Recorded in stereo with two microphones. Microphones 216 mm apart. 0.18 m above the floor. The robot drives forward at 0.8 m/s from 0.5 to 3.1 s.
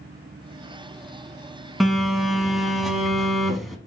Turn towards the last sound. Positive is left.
turn(degrees=0)  # may be behind; listen again after turning